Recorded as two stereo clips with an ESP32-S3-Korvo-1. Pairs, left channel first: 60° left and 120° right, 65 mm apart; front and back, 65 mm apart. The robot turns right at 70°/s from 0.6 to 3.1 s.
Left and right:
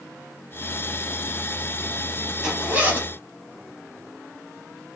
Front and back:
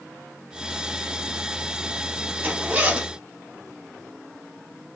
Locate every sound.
2.4 s a zipper: 175° left, 1.0 m; by 3.1 s 135° right, 1.0 m